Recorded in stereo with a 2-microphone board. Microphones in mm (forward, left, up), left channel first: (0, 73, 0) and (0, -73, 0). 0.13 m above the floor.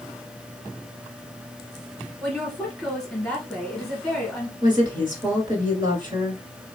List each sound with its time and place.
2.2 s a woman speaking: 5° left (ahead or behind), 1.8 m
4.6 s a woman speaking: 30° right (ahead or behind), 1.7 m